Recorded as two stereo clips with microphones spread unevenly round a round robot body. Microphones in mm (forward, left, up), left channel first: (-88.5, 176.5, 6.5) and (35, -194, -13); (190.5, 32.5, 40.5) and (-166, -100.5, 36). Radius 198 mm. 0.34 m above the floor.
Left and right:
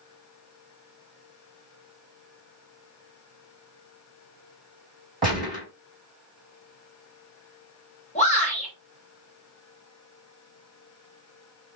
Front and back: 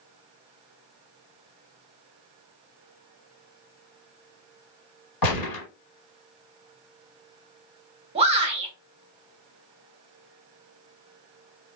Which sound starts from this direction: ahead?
A gunshot, at 5.2 s.